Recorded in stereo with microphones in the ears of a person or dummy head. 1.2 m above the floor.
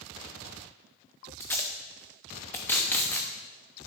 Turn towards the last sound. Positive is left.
turn(degrees=10)  # may be behind; listen again after turning